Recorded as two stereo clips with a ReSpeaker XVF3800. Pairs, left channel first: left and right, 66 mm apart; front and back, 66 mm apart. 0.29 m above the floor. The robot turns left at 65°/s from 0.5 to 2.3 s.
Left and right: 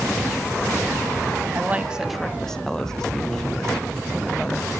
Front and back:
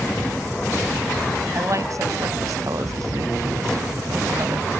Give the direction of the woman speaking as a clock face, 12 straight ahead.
5 o'clock.